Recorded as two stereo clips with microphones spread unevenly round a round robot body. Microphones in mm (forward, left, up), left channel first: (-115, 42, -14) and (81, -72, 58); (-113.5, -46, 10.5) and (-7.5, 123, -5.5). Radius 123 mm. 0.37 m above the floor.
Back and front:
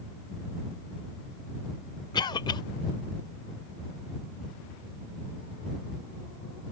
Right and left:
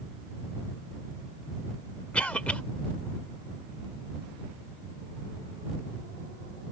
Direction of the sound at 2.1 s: 150° left.